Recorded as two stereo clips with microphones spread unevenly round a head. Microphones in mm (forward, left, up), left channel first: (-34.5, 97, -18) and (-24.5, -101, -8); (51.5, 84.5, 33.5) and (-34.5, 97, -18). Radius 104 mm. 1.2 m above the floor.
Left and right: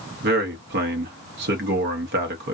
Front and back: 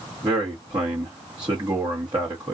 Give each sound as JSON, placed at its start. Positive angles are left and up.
{"t": 0.2, "sound": "a man speaking", "azimuth_deg": -125, "distance_m": 1.0}